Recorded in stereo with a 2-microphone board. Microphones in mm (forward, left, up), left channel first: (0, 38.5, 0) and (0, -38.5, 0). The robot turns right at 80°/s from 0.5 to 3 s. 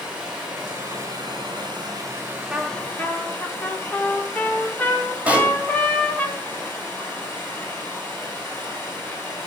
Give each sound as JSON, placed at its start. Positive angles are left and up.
{"t": 0.0, "sound": "running water", "azimuth_deg": -165, "distance_m": 6.0}
{"t": 2.5, "sound": "a trumpet", "azimuth_deg": -15, "distance_m": 1.8}
{"t": 5.3, "sound": "a pop", "side_deg": -20, "distance_m": 1.6}